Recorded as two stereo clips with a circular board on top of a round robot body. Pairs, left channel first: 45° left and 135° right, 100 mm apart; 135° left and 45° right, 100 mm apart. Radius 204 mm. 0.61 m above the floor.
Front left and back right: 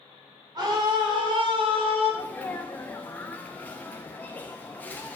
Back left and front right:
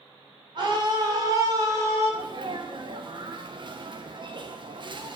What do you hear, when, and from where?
0.6 s a scream: 85° right, 3 m; by 2.1 s 110° right, 3 m
2.1 s a sneeze: 25° right, 1.0 m